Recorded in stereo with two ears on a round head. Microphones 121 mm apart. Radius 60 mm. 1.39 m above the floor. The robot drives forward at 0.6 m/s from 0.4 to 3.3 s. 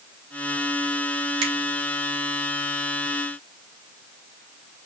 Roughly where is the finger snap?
Right.